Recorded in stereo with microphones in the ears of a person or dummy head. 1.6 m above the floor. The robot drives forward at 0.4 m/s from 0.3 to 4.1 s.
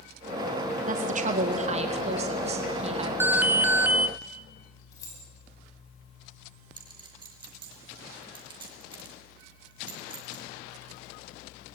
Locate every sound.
0.9 s a woman speaking: 40° right (ahead or behind), 2 m; by 3.1 s 30° right (ahead or behind), 2.5 m
3.2 s an alarm: 10° right (ahead or behind), 0.7 m; by 4.1 s 5° right (ahead or behind), 0.9 m
4.9 s keys jangling: 20° left (ahead or behind), 9 m
6.8 s a clink: 25° right (ahead or behind), 2.5 m